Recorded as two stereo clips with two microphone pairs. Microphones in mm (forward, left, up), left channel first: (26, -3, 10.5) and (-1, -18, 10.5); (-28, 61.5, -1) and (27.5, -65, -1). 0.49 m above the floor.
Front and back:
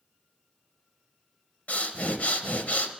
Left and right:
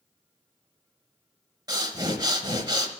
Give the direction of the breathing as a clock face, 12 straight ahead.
12 o'clock.